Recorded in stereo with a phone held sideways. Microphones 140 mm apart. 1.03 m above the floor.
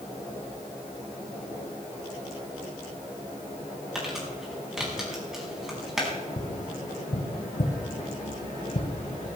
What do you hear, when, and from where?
4.0 s crumpling: 5° right (ahead or behind), 5 m
6.4 s tapping: 70° left (ahead or behind), 2.5 m